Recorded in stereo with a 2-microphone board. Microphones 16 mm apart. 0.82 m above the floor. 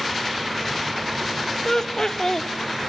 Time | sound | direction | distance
1.6 | laughter | 35° left (ahead or behind) | 0.7 m